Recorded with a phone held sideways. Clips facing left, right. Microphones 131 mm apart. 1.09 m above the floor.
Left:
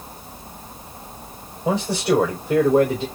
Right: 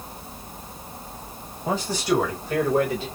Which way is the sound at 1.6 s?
75° left (ahead or behind).